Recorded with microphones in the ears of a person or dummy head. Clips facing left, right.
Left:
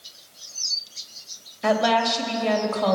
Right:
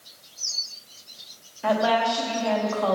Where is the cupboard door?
No cupboard door in this recording.